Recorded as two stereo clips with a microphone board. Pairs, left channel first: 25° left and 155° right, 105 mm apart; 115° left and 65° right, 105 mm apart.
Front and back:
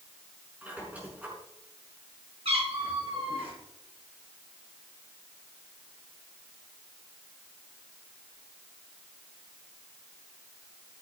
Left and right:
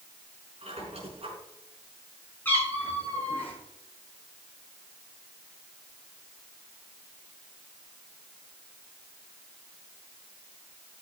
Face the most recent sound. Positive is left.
turn(degrees=-175)